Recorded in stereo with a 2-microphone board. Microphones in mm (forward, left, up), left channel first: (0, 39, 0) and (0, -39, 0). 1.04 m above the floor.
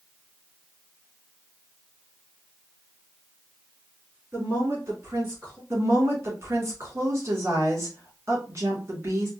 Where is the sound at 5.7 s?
35° right (ahead or behind), 2.5 m.